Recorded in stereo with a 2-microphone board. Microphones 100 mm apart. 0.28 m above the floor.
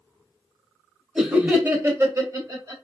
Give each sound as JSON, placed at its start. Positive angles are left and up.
{"t": 1.1, "sound": "laughter", "side_deg": -5, "distance_m": 1.0}